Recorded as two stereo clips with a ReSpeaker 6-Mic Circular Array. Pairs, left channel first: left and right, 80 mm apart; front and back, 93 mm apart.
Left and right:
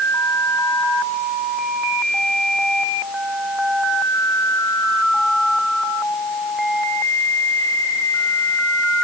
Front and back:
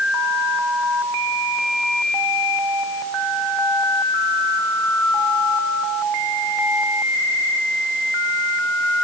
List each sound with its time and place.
Only background noise.